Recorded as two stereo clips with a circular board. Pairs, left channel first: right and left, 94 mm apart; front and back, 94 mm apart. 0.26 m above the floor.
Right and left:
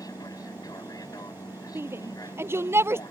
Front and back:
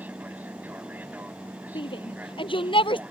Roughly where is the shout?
Ahead left.